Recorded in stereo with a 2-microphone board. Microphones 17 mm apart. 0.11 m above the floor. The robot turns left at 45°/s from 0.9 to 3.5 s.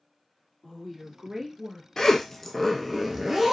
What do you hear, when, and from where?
0.6 s a woman speaking: 45° right, 1.3 m; by 1.9 s 85° right, 1.3 m
2.0 s a zipper: 40° left, 0.5 m; by 3.5 s 30° right, 0.5 m